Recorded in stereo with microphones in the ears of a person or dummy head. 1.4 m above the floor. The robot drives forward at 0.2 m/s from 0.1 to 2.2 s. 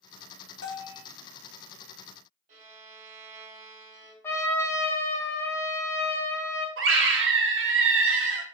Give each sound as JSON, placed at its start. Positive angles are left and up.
{"t": 0.6, "sound": "a bell", "side_deg": 65, "distance_m": 0.6}
{"t": 2.5, "sound": "a violin", "side_deg": -45, "distance_m": 0.9}
{"t": 4.2, "sound": "a trumpet", "side_deg": 15, "distance_m": 0.5}
{"t": 6.8, "sound": "a scream", "side_deg": -65, "distance_m": 0.6}